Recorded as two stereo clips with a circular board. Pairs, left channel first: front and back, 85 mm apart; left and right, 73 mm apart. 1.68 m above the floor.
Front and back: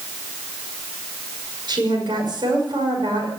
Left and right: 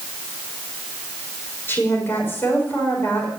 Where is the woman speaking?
150° left, 6 m.